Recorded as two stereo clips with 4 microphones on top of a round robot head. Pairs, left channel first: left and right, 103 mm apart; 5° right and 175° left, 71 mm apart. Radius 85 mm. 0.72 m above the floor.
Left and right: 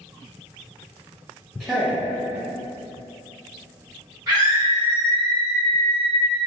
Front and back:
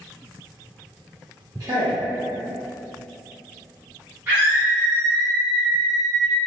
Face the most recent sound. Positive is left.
turn(degrees=-130)